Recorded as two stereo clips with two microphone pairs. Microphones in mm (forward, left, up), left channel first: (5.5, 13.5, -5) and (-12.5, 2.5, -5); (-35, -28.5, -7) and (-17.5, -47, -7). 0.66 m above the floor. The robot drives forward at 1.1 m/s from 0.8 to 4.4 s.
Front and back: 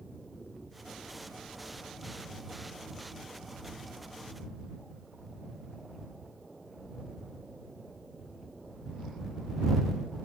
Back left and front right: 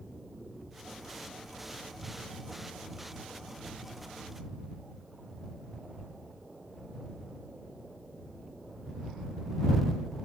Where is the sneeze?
No sneeze in this recording.